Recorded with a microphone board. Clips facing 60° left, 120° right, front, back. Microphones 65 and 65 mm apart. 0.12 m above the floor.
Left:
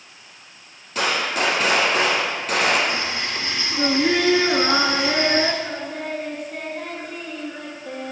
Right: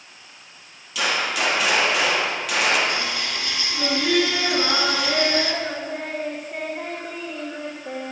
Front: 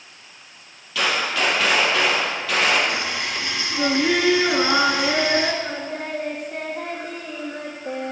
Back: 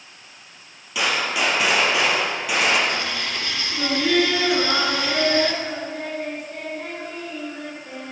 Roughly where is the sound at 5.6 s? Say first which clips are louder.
Even, even; ahead right.